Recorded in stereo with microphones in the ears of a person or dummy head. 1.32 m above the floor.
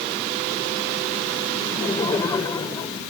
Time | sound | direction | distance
1.6 | laughter | 15° left (ahead or behind) | ?